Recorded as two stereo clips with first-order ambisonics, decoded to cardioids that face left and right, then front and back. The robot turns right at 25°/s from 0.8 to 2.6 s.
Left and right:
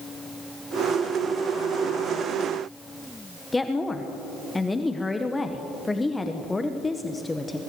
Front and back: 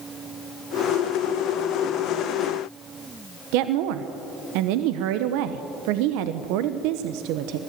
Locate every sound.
3.5 s a woman speaking: 170° left, 0.8 m